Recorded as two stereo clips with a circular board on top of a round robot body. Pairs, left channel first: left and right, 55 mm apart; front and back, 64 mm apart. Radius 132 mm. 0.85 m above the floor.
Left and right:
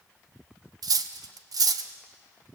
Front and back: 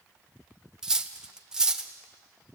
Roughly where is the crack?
I don't hear a crack.